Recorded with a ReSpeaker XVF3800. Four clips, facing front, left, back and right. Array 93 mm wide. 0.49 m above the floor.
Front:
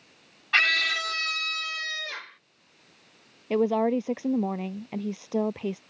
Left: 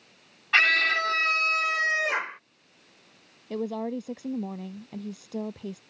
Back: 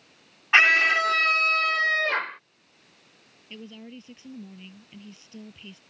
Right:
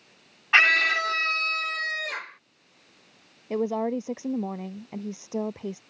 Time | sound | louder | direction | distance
0.5 | a scream | right 2 dB, back 6 dB | 145° right | ?
3.5 | a woman speaking | right 4 dB, front 20 dB | 15° right | ?